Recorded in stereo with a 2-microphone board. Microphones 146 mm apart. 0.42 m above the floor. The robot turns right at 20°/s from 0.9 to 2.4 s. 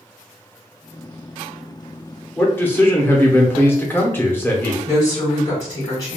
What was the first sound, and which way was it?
A man speaking, 15° left (ahead or behind).